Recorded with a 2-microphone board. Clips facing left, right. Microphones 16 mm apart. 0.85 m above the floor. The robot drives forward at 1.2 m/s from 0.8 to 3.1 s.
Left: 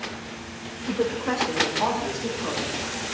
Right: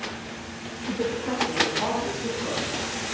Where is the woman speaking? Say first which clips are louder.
Left 2 dB; 50° left (ahead or behind), 1.1 m; by 3.0 s 15° left (ahead or behind), 3 m.